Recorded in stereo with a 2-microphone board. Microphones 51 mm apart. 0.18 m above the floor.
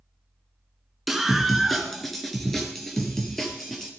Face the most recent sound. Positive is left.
turn(degrees=5)  # may be behind; listen again after turning